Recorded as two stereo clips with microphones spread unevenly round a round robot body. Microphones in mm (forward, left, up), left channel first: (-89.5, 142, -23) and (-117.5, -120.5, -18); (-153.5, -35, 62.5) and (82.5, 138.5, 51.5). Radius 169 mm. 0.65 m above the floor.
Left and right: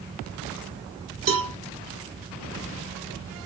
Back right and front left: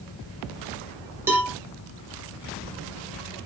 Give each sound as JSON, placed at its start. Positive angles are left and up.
{"t": 1.3, "sound": "a cowbell", "azimuth_deg": -45, "distance_m": 0.6}